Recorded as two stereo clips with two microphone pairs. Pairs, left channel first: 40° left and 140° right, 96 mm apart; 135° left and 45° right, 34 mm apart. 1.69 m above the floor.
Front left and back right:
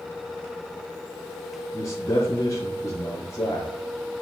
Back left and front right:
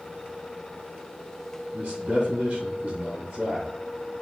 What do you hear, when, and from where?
1.7 s a man speaking: 15° right, 1.6 m